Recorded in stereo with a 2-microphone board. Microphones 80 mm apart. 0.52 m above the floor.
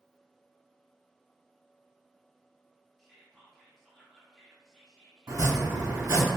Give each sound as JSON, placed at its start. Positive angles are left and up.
{"t": 3.0, "sound": "whispering", "side_deg": 5, "distance_m": 0.7}
{"t": 5.3, "sound": "chopping", "side_deg": -50, "distance_m": 1.5}